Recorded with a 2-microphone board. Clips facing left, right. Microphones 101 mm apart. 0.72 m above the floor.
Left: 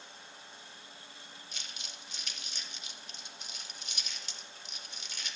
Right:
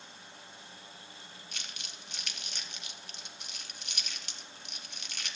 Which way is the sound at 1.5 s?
70° right (ahead or behind).